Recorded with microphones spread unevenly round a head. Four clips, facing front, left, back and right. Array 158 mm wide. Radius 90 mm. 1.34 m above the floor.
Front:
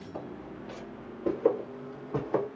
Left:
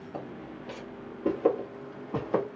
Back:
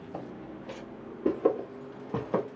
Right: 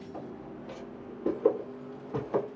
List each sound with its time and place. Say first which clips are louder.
0.1 s footsteps: left 3 dB, even; 170° left, 2.5 m; by 2.5 s 150° right, 2 m